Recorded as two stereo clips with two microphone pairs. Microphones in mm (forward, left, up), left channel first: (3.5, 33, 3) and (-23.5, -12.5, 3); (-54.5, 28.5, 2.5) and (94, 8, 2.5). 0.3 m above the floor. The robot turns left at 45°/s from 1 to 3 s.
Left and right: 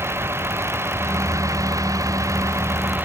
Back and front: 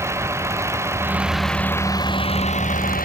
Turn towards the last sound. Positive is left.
turn(degrees=-170)